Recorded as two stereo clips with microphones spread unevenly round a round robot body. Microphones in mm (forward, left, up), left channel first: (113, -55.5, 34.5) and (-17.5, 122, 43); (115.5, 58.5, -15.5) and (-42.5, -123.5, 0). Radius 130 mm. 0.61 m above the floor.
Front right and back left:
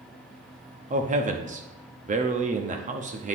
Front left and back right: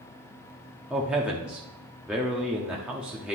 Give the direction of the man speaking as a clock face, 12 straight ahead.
7 o'clock.